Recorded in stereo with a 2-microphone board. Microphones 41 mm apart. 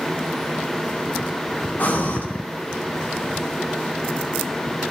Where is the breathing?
40° left (ahead or behind), 1.0 m.